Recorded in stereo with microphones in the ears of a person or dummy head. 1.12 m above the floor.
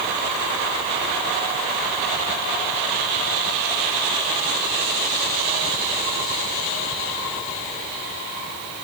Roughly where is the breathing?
I don't hear breathing.